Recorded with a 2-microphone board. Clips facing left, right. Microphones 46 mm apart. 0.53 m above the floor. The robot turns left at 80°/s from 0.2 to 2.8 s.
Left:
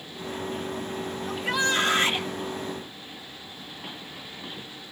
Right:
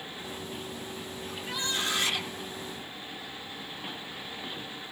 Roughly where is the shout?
Left.